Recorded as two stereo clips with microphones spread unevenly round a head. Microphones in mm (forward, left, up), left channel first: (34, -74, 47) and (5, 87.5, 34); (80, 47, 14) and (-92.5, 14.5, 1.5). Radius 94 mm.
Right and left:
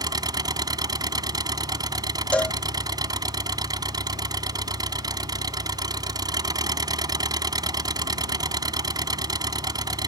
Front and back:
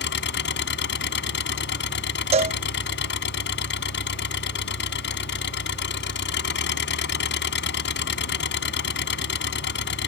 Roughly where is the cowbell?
Behind right.